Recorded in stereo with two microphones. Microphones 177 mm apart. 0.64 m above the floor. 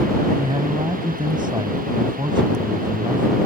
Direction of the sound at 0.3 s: 25° right (ahead or behind).